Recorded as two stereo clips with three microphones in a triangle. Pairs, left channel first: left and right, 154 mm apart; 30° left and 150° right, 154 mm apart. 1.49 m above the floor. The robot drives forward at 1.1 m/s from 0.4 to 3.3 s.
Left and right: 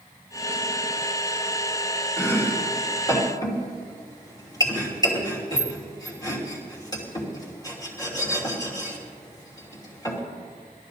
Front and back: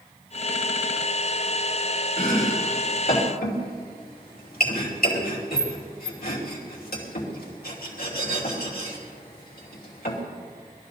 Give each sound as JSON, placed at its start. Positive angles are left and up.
{"t": 2.2, "sound": "chopping", "azimuth_deg": 15, "distance_m": 4.0}